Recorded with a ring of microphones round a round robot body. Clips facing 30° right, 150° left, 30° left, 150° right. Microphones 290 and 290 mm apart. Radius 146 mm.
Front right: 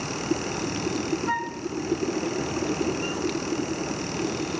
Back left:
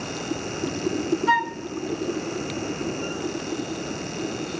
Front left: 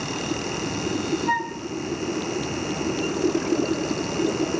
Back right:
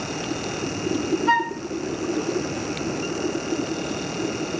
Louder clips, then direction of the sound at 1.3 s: Back left 3 dB, back right 3 dB; 155° left.